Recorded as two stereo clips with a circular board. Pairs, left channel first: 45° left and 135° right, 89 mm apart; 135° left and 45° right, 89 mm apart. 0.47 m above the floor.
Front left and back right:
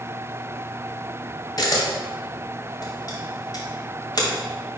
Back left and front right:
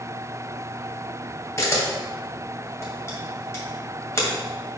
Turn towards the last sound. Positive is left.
turn(degrees=80)